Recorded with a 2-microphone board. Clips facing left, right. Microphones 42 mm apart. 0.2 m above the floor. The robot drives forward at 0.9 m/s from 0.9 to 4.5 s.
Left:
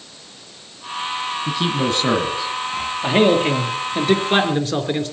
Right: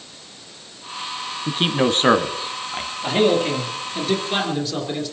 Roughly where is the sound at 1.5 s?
Right.